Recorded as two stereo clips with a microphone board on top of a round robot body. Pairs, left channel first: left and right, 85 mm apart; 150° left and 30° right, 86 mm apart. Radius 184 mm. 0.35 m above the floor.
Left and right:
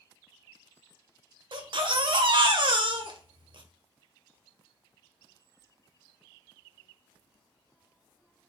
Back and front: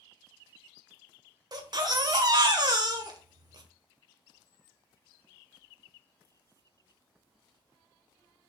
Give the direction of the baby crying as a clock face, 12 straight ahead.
2 o'clock.